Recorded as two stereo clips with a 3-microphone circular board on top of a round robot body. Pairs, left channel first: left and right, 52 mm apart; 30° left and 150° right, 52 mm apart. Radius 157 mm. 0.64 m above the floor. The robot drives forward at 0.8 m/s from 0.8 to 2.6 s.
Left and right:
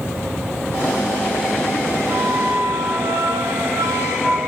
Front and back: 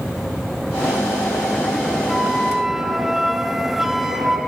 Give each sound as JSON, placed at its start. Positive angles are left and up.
{"t": 2.1, "sound": "a flute", "azimuth_deg": -55, "distance_m": 2.5}